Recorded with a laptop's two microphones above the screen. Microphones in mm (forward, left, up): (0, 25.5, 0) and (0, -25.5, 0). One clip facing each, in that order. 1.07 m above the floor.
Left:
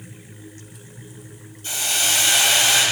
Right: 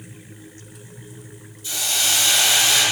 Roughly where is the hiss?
Left.